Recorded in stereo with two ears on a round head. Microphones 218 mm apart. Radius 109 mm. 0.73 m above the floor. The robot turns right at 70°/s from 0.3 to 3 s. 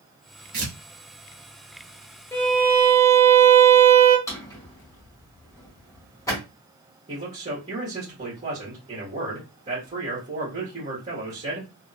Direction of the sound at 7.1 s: 25° right (ahead or behind).